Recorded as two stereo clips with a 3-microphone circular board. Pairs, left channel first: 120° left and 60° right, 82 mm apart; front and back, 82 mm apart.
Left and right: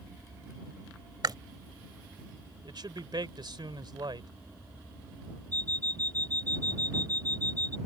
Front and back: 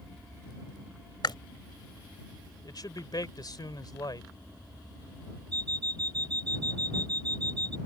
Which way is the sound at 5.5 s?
170° right.